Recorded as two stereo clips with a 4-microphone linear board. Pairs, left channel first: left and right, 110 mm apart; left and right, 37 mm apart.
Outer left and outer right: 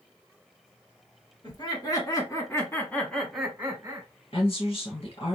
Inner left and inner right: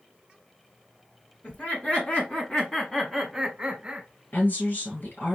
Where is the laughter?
45° left (ahead or behind), 2.5 m; by 4.1 s 25° right (ahead or behind), 1.5 m.